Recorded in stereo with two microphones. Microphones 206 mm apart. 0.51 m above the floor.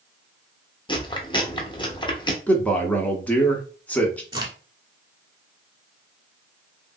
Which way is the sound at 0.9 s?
20° left (ahead or behind).